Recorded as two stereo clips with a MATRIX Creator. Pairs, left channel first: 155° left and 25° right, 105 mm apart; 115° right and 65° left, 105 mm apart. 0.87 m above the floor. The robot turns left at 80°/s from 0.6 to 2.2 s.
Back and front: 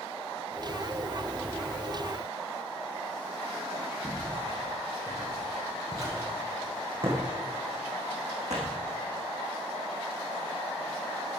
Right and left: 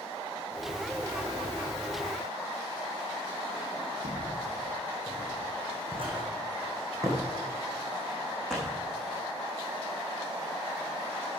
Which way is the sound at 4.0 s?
60° left.